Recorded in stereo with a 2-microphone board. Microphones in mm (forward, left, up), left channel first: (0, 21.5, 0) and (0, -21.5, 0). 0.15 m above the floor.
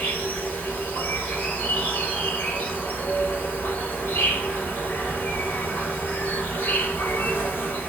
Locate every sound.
0.0 s an insect: 50° left (ahead or behind), 1.6 m